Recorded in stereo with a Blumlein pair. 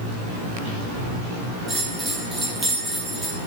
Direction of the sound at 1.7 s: 15° right.